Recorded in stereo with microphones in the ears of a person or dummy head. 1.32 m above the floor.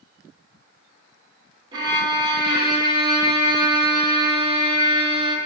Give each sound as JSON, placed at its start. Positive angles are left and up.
{"t": 1.7, "sound": "a violin", "side_deg": -20, "distance_m": 1.1}